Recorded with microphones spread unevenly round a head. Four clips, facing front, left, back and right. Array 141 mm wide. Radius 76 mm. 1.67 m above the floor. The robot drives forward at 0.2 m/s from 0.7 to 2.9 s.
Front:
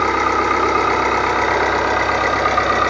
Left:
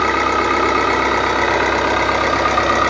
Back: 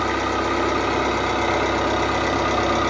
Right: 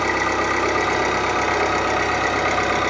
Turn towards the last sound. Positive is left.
turn(degrees=85)